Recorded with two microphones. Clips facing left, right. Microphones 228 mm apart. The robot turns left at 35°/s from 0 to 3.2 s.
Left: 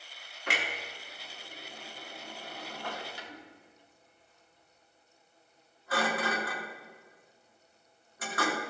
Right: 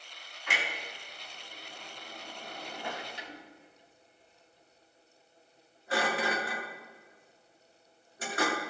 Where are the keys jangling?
No keys jangling in this recording.